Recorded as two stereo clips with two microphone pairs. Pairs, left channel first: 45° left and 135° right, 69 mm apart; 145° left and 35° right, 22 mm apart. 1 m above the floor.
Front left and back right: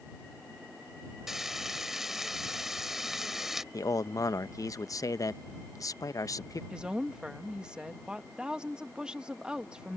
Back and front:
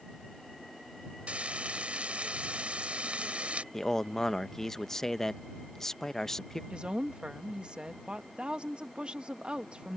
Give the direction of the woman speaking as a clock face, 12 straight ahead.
2 o'clock.